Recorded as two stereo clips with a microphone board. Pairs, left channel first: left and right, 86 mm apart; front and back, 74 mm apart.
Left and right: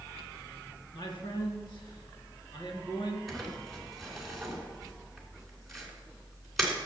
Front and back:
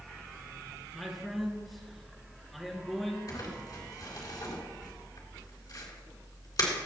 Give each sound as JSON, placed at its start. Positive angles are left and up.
{"t": 0.9, "sound": "a man speaking", "azimuth_deg": 90, "distance_m": 3.5}
{"t": 3.3, "sound": "crumpling", "azimuth_deg": 0, "distance_m": 3.0}